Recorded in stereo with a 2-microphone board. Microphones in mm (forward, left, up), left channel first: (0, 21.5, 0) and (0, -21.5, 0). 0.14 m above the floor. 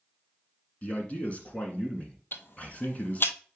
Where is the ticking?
55° left (ahead or behind), 0.8 m.